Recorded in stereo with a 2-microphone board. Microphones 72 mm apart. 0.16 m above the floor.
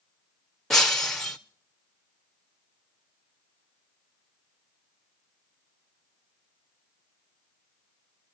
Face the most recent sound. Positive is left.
turn(degrees=10)  # may be behind; listen again after turning